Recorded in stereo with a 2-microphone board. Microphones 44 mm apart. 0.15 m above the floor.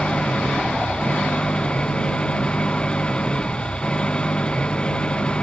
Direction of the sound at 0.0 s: 20° left (ahead or behind).